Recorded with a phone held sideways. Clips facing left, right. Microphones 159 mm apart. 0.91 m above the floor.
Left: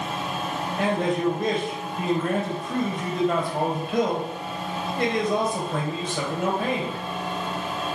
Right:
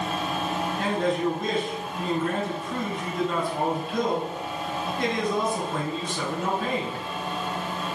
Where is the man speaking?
65° left (ahead or behind), 4 m.